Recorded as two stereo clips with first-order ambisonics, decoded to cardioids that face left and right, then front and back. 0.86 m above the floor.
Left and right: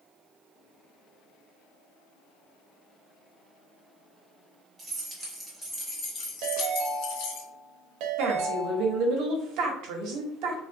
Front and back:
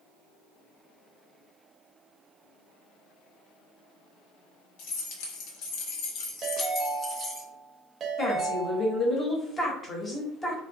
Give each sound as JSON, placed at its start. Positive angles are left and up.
{"t": 4.8, "sound": "keys jangling", "azimuth_deg": -10, "distance_m": 1.2}
{"t": 6.4, "sound": "a ringtone", "azimuth_deg": -115, "distance_m": 0.7}
{"t": 8.2, "sound": "a woman speaking", "azimuth_deg": -70, "distance_m": 0.9}